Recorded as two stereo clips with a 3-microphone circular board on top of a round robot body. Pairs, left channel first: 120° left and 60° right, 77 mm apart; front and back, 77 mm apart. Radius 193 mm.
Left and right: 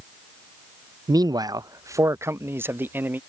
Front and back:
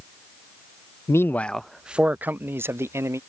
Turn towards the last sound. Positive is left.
turn(degrees=-125)